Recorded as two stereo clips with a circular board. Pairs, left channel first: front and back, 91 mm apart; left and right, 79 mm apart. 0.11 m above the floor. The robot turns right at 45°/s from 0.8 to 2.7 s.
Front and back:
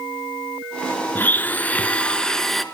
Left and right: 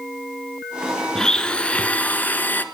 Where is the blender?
20° left, 0.6 m; by 2.6 s 85° left, 0.6 m.